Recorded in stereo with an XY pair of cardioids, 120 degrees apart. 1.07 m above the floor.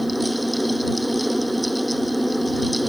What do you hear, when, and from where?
0.0 s a fan: 5° right